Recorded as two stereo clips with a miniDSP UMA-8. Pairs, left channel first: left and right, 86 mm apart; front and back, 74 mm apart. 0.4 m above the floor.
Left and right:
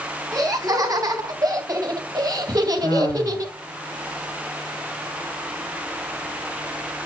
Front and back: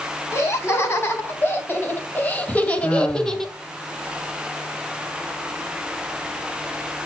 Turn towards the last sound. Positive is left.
turn(degrees=60)